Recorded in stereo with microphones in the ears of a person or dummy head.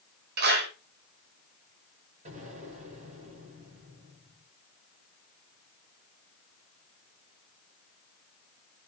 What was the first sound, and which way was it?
A clap, 70° right (ahead or behind).